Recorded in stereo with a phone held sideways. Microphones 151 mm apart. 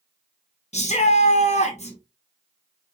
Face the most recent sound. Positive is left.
turn(degrees=50)  # may be behind; listen again after turning